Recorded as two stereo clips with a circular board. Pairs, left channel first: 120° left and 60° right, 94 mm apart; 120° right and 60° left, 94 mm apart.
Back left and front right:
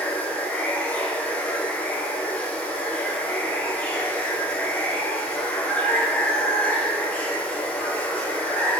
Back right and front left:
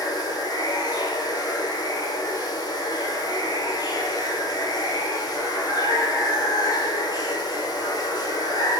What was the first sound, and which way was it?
Running water, 165° right.